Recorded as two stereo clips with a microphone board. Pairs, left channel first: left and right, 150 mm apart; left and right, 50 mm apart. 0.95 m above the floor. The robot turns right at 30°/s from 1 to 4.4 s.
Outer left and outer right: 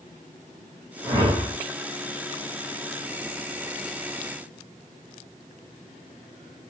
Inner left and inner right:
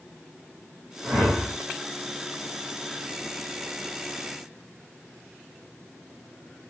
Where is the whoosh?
30° right (ahead or behind), 1.7 m; by 1.5 s 15° right (ahead or behind), 1.7 m.